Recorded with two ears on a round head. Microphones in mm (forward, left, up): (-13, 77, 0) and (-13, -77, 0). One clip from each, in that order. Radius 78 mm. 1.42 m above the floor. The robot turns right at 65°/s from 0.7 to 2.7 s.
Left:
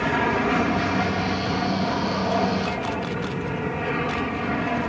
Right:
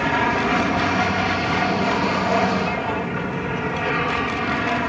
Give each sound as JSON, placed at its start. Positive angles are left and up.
{"t": 0.0, "sound": "an aircraft", "azimuth_deg": -160}